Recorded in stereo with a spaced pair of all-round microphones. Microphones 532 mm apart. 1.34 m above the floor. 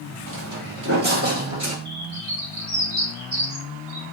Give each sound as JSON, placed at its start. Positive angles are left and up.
{"t": 0.3, "sound": "footsteps", "side_deg": -40, "distance_m": 2.0}
{"t": 1.9, "sound": "a bird", "side_deg": -65, "distance_m": 1.9}